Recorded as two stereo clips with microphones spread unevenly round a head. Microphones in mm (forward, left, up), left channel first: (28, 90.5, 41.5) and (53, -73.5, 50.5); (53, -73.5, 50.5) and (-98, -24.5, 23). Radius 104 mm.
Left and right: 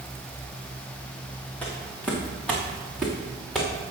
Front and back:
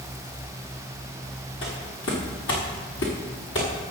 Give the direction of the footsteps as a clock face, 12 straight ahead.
11 o'clock.